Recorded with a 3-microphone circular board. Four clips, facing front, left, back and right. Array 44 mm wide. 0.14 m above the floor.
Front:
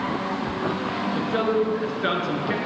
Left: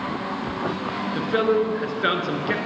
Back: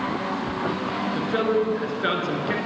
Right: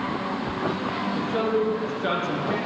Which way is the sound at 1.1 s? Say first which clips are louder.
Left 5 dB, even; 95° left.